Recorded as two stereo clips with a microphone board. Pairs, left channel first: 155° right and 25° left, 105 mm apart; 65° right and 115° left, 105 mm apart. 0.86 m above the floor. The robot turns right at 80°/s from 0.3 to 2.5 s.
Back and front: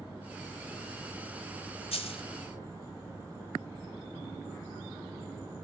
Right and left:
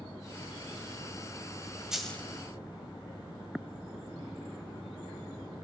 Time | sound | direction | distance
1.9 | a dropped coin | 165° right | 1.7 m